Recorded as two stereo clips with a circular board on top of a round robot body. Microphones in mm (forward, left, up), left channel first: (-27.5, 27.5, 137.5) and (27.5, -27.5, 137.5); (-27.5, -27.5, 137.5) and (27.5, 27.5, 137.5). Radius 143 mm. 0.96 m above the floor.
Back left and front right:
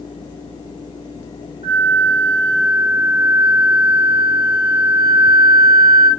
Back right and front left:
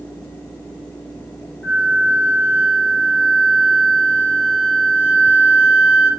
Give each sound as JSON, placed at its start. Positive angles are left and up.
{"t": 1.6, "sound": "a flute", "azimuth_deg": -60, "distance_m": 1.6}